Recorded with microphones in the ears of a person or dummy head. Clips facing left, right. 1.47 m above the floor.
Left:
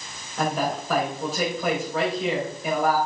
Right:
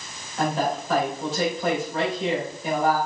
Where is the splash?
I don't hear a splash.